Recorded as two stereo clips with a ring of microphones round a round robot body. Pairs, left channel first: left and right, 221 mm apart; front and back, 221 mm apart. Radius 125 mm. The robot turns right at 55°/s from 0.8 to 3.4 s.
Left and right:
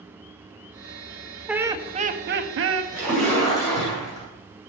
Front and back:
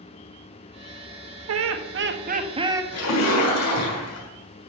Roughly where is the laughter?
Behind.